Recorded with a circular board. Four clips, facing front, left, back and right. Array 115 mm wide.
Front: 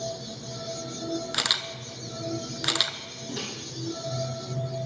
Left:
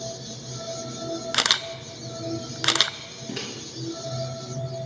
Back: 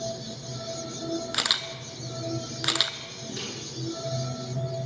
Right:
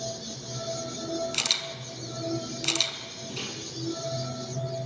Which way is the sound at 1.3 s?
90° left.